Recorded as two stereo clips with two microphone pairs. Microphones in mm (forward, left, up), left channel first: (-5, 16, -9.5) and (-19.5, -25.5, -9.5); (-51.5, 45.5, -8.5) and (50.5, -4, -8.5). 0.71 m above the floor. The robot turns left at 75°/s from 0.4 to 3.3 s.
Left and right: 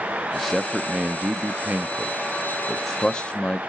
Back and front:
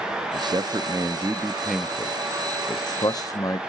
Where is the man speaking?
15° right, 0.6 m; by 3.6 s 125° left, 0.6 m.